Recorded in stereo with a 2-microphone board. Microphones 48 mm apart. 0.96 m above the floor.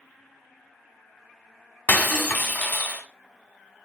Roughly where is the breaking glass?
Left.